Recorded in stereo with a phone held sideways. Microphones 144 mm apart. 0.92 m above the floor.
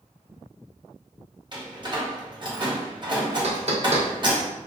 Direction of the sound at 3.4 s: 55° right (ahead or behind).